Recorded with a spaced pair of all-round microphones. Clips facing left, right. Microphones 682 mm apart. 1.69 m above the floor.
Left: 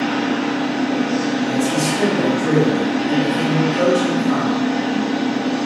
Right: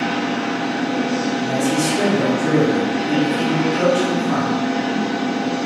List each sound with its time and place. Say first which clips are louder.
0.0 s a machine running: left 3 dB; 40° left (ahead or behind), 1.9 m
1.4 s a man speaking: left 1 dB; 30° left (ahead or behind), 1.3 m